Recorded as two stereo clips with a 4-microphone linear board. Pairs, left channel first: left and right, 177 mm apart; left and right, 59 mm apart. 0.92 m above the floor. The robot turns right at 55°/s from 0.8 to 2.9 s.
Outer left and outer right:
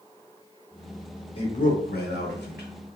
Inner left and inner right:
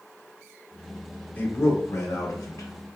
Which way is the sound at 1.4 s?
35° left.